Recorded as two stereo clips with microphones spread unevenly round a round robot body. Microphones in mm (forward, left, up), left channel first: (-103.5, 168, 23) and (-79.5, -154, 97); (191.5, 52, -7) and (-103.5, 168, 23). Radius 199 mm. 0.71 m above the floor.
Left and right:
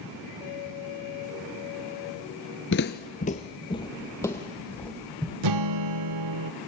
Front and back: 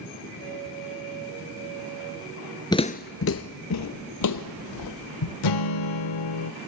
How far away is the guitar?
About 0.7 m.